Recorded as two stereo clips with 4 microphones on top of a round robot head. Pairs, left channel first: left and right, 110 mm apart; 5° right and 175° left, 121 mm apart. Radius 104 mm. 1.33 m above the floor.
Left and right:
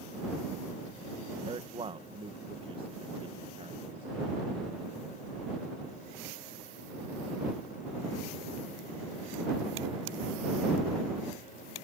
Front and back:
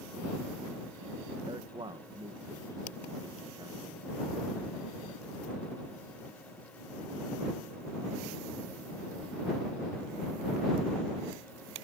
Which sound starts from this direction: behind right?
A man speaking, at 1.5 s.